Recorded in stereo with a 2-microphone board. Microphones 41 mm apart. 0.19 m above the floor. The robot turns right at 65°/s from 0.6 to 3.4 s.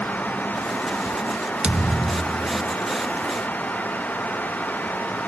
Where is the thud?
25° right; by 2.8 s 50° left.